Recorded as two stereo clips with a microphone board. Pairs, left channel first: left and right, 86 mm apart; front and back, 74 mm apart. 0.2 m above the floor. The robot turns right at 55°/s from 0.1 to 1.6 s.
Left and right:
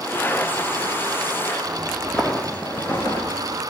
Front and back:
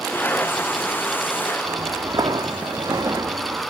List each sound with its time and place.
1.6 s footsteps: straight behind, 1.6 m; by 3.6 s 145° left, 2.5 m